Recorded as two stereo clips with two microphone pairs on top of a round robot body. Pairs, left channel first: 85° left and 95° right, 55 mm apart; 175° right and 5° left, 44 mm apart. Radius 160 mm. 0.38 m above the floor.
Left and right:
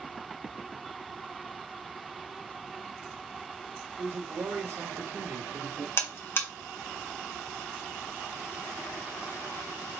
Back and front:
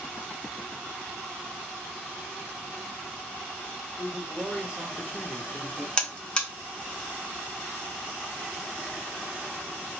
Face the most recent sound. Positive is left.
turn(degrees=120)